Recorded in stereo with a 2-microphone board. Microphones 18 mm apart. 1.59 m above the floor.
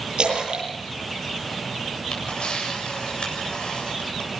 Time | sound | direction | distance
0.2 | a splash | 50° right (ahead or behind) | 8 m
2.1 | a camera shutter | 60° left (ahead or behind) | 8 m